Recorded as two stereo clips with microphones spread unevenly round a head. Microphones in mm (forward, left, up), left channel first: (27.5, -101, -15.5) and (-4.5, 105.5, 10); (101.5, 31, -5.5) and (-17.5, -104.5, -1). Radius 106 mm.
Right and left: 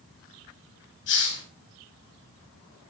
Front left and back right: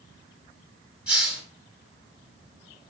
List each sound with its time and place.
1.1 s a hiss: 50° right, 8.5 m